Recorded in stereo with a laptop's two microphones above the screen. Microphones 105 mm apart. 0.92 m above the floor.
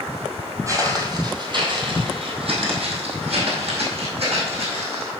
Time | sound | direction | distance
0.7 | footsteps | 30° right (ahead or behind) | 1.8 m